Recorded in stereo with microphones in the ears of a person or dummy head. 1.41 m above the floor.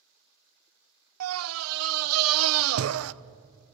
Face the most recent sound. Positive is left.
turn(degrees=-90)